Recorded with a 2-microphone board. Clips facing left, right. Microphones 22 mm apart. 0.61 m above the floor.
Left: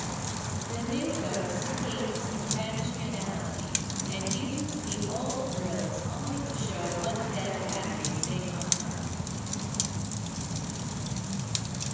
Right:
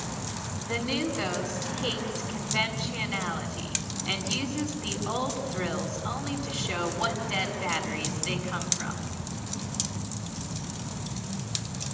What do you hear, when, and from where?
0.6 s a woman speaking: 70° right (ahead or behind), 6 m